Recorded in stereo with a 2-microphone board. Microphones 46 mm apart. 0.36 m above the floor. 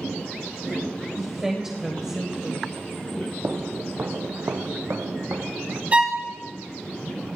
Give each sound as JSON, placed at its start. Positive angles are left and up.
{"t": 1.2, "sound": "a woman speaking", "side_deg": -15, "distance_m": 1.4}
{"t": 3.4, "sound": "footsteps", "side_deg": -35, "distance_m": 0.9}
{"t": 5.9, "sound": "a violin", "side_deg": -30, "distance_m": 1.0}